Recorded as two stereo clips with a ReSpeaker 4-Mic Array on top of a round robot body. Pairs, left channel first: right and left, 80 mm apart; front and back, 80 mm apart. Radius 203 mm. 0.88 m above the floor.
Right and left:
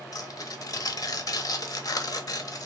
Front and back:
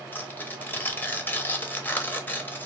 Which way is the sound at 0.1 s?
60° right.